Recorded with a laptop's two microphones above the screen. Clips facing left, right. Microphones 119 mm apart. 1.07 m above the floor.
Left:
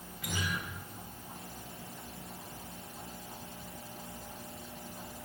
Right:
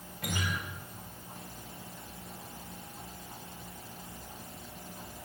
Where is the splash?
I don't hear a splash.